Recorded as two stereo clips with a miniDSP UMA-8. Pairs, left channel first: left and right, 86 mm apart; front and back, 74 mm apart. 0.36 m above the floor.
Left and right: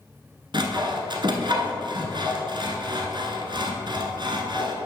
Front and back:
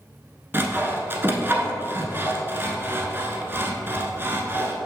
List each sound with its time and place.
0.5 s sawing: 120° right, 1.0 m